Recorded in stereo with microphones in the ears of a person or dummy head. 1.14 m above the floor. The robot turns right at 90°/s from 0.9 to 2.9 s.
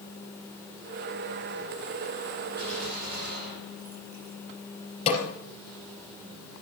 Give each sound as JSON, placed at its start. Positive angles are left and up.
{"t": 2.6, "sound": "a gunshot", "side_deg": -30, "distance_m": 6.5}
{"t": 5.1, "sound": "a snare drum", "side_deg": 35, "distance_m": 4.5}